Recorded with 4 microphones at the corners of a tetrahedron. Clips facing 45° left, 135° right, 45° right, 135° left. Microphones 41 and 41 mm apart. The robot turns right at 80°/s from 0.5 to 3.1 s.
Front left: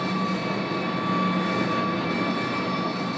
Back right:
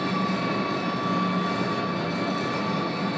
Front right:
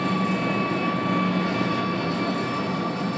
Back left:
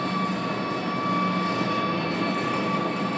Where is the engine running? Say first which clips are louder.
Even, front right 3 dB; 55° right, 0.8 m; by 3.2 s 155° left, 0.8 m.